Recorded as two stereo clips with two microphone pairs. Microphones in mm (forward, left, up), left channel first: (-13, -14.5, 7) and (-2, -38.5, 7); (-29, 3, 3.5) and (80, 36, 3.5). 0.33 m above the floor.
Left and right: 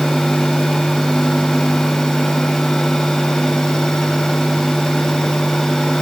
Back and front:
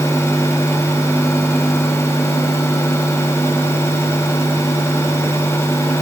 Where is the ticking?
No ticking in this recording.